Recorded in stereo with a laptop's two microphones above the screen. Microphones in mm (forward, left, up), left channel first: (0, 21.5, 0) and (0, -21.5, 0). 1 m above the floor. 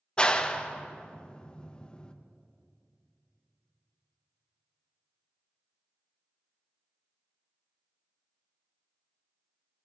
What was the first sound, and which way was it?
A clap, 25° left (ahead or behind).